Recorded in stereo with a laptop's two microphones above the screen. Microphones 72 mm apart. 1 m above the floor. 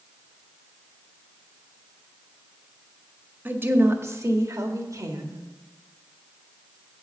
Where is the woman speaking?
30° right (ahead or behind), 1.4 m; by 5.4 s 60° right (ahead or behind), 1.9 m.